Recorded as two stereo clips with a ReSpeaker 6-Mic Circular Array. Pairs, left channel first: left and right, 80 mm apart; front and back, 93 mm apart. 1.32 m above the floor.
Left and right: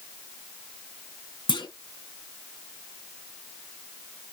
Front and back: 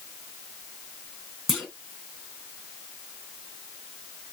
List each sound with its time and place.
1.5 s a clunk: 95° left, 1.4 m